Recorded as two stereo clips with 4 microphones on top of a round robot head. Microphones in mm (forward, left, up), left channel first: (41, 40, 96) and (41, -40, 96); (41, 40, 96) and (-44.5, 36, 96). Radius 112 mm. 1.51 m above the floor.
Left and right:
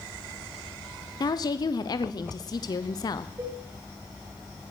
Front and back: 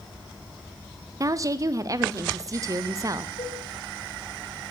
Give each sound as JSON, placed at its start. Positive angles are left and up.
{"t": 1.2, "sound": "a woman speaking", "azimuth_deg": 130, "distance_m": 0.7}
{"t": 3.4, "sound": "a cowbell", "azimuth_deg": -35, "distance_m": 8.0}